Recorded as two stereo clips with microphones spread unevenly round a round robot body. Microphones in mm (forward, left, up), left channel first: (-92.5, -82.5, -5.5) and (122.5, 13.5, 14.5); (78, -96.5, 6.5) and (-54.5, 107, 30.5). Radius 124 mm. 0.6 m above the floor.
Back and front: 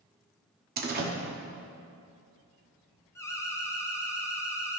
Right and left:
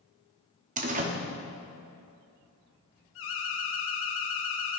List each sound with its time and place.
0.8 s a door slam: 70° left, 0.9 m
3.1 s an alarm: 80° right, 1.0 m